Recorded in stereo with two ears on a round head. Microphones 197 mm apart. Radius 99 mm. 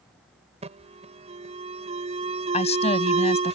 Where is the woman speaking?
30° left (ahead or behind).